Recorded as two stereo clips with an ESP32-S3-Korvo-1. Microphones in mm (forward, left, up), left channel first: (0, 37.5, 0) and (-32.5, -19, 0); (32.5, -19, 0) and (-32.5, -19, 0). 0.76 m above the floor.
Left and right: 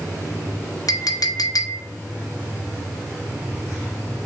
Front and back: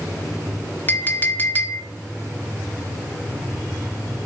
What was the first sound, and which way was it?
A clink, 60° left.